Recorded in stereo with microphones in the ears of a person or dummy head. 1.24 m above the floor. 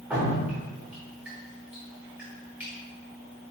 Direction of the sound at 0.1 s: 5° right (ahead or behind).